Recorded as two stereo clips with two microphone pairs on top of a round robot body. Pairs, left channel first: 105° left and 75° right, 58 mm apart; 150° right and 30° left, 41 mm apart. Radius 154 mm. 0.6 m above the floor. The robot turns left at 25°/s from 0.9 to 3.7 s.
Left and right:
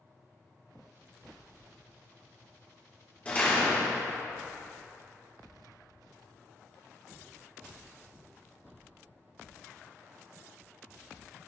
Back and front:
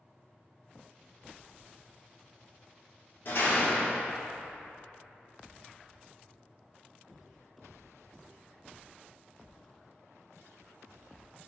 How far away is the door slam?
About 1.7 m.